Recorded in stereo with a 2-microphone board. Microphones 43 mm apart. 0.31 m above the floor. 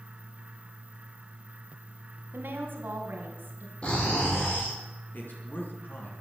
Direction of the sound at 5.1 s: 50° left (ahead or behind).